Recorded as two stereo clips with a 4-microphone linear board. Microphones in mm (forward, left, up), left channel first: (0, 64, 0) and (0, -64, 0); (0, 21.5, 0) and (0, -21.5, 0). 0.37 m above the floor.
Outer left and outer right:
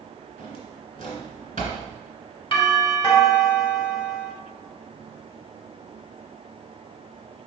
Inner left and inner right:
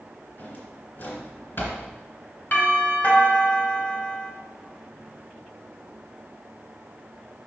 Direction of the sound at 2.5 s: 45° left (ahead or behind).